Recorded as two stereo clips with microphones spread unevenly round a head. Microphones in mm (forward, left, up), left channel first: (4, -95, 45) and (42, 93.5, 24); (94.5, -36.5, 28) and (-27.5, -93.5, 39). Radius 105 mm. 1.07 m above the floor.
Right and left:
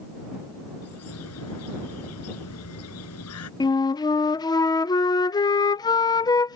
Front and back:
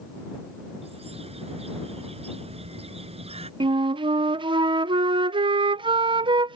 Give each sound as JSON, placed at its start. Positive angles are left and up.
{"t": 0.8, "sound": "a bird", "azimuth_deg": -110}
{"t": 3.6, "sound": "a flute", "azimuth_deg": -165}